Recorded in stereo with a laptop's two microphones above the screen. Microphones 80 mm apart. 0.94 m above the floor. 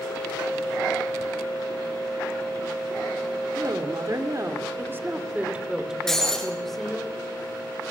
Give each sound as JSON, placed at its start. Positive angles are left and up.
{"t": 3.5, "sound": "a woman speaking", "side_deg": -60, "distance_m": 2.5}
{"t": 6.1, "sound": "breaking glass", "side_deg": 5, "distance_m": 7.0}